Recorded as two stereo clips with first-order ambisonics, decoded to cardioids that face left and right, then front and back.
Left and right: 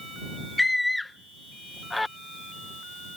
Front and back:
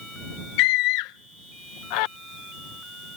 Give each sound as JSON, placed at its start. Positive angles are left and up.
{"t": 0.6, "sound": "a scream", "azimuth_deg": 5}